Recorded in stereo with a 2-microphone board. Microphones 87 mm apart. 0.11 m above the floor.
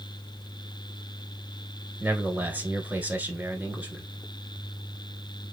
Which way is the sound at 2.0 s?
20° right (ahead or behind).